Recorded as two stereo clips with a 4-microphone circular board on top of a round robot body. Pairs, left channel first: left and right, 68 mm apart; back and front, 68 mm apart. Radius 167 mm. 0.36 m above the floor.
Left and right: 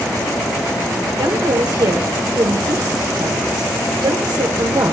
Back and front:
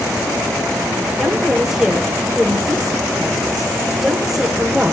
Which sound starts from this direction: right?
A woman speaking, at 1.2 s.